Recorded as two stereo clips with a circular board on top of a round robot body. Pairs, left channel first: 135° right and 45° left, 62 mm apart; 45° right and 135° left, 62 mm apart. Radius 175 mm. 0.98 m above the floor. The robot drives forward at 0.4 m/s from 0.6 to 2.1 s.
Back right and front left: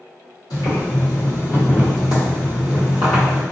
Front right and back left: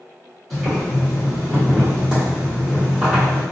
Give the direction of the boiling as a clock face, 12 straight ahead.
5 o'clock.